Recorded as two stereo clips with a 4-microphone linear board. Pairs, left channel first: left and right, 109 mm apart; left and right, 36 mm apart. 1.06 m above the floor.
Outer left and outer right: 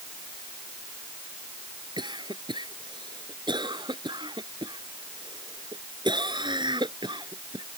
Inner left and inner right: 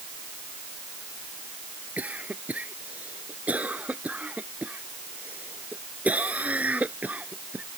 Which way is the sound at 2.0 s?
45° right (ahead or behind).